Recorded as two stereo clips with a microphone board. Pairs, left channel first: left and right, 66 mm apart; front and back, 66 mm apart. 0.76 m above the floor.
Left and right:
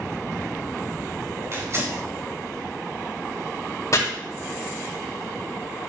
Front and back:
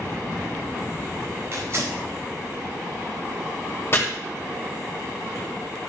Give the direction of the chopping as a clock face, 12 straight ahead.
10 o'clock.